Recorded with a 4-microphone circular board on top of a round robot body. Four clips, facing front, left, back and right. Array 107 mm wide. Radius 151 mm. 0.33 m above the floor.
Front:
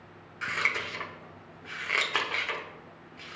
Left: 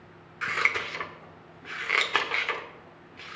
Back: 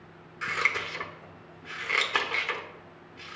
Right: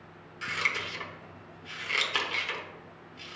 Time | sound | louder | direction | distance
0.4 | scissors | left 4 dB, back 1 dB | 95° left | 1.2 m